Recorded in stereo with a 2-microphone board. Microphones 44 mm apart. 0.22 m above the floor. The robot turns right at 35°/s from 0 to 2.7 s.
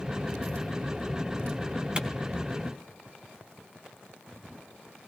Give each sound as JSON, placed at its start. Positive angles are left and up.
{"t": 2.0, "sound": "a clap", "side_deg": -25, "distance_m": 1.5}